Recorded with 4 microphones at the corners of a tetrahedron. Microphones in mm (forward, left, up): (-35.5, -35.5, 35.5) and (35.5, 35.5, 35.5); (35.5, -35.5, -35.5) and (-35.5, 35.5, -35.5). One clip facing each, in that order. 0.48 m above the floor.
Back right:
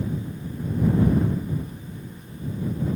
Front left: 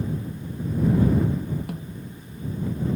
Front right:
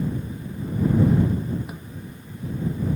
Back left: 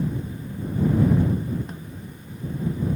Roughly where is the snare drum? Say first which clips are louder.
Front left 4 dB, even; ahead left.